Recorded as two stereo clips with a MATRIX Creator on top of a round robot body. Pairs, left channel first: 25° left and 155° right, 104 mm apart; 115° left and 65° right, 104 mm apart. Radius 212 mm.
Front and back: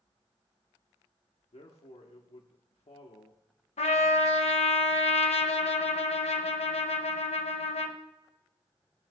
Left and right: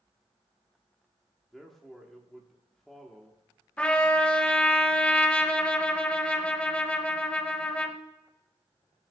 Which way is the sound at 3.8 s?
35° left.